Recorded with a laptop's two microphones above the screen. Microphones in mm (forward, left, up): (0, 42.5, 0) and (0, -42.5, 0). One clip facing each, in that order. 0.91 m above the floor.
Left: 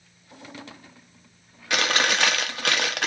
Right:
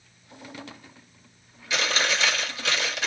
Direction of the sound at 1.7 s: 60° left (ahead or behind).